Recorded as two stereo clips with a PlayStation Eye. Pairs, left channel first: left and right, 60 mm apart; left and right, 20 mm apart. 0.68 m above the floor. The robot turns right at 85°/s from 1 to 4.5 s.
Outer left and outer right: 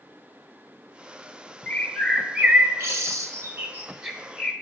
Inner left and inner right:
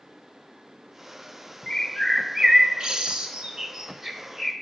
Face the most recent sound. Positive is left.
turn(degrees=25)  # may be behind; listen again after turning